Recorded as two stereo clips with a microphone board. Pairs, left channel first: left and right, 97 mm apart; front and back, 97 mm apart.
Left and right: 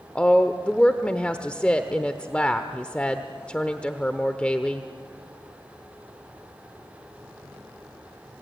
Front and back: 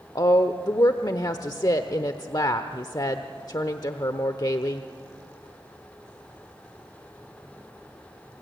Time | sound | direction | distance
0.1 | a woman speaking | 15° left | 1.0 m